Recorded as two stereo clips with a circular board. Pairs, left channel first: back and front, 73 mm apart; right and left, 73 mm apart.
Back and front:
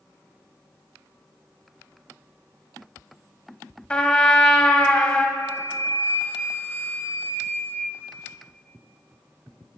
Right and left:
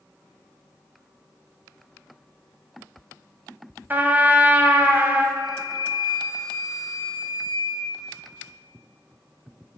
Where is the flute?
120° right, 0.8 m.